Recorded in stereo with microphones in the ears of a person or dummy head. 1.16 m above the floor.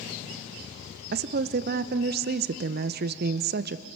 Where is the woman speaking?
55° right (ahead or behind), 0.7 m.